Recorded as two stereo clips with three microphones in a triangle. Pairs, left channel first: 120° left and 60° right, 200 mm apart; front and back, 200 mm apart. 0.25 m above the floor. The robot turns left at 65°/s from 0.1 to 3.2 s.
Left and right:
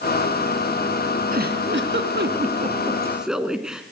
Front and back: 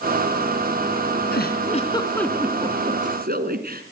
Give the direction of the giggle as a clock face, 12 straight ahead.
1 o'clock.